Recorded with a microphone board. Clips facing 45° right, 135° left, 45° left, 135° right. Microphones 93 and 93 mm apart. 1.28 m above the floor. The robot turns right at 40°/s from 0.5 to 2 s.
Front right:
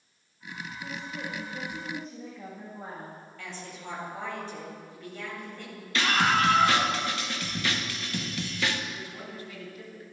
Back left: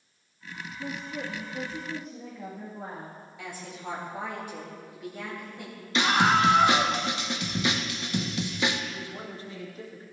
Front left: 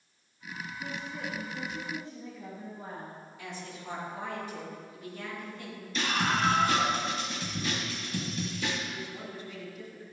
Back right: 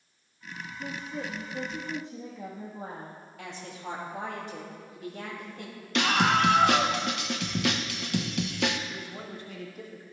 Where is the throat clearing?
No throat clearing in this recording.